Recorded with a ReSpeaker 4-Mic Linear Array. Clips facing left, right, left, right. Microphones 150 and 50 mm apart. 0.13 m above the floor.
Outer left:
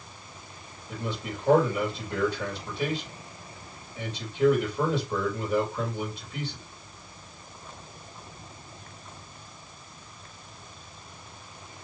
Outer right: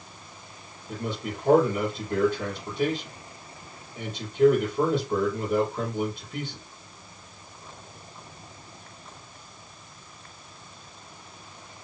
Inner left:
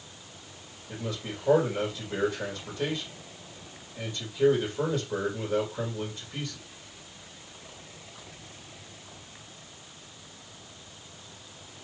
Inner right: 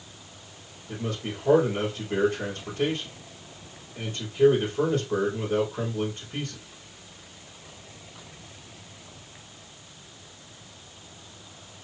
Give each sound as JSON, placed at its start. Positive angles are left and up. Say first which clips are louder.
{"t": 0.9, "sound": "a man speaking", "louder": "outer right 2 dB, inner right 3 dB", "side_deg": -50, "distance_m": 3.5}